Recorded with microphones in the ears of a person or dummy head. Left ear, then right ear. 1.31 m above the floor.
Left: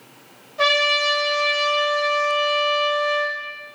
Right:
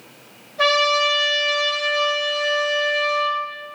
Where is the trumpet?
35° left (ahead or behind), 1.6 m.